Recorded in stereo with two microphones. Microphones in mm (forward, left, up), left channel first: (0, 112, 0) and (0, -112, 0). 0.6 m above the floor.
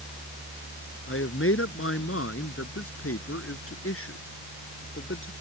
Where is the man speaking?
65° left (ahead or behind).